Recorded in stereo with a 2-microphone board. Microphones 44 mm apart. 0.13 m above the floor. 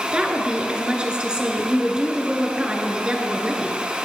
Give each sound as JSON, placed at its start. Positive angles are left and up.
{"t": 0.1, "sound": "a woman speaking", "side_deg": -20, "distance_m": 1.9}